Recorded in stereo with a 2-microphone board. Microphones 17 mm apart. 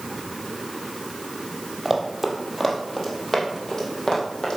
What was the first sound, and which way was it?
Running footsteps, 10° right (ahead or behind).